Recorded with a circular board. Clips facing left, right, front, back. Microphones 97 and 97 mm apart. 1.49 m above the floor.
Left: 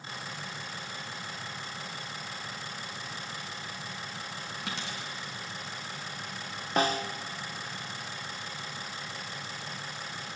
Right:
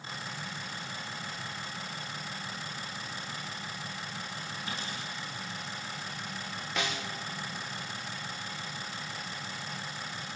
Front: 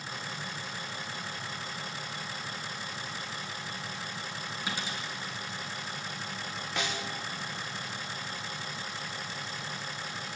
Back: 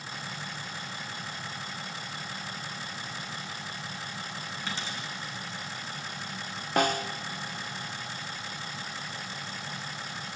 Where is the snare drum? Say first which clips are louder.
Left 8 dB, back 10 dB; 140° left, 1.0 m.